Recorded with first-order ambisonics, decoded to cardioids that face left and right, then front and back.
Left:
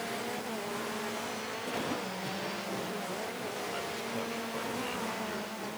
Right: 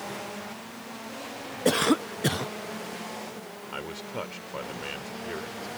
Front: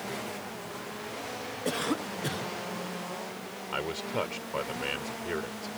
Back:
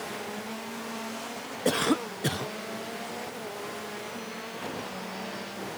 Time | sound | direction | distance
1.6 | a cough | 110° right | ?
3.7 | a man speaking | 25° right | ?